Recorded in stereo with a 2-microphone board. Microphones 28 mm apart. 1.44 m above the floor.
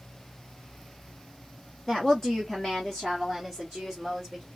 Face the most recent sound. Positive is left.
turn(degrees=0)  # may be behind; listen again after turning